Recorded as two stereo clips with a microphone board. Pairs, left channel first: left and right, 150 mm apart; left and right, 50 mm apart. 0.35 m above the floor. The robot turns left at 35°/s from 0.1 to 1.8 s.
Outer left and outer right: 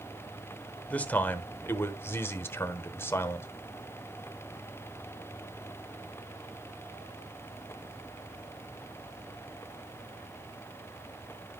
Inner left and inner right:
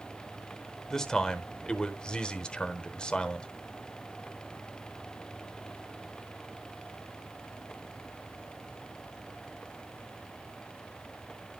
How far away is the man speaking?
About 0.9 m.